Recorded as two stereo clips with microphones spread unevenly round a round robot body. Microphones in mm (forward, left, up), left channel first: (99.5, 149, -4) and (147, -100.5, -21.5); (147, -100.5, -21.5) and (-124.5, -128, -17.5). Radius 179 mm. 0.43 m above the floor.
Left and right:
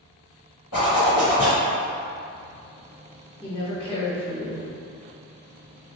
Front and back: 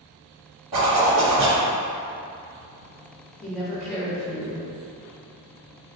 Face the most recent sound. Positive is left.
turn(degrees=65)